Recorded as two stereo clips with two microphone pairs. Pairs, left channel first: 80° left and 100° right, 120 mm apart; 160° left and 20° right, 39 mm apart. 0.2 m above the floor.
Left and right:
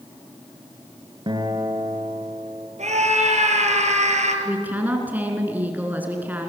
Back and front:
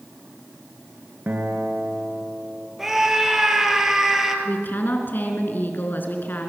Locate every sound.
1.3 s a guitar: 55° right, 3 m
2.8 s a scream: 100° right, 4.5 m
4.5 s a woman speaking: 175° right, 3 m